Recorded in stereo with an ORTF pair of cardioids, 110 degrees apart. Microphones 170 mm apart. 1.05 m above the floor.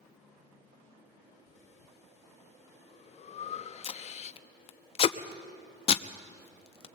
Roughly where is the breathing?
Ahead left.